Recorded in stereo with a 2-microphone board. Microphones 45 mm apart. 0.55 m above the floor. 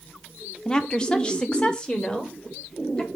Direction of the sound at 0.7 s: 20° left (ahead or behind).